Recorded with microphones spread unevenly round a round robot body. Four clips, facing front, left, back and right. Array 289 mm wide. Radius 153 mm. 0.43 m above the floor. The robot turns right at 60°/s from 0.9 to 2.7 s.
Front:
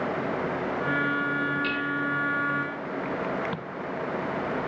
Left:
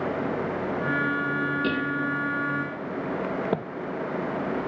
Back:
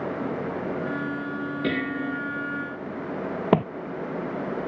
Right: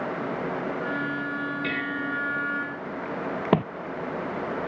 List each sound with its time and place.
1.6 s dishes clattering: 145° left; by 2.2 s straight behind
3.5 s footsteps: 125° right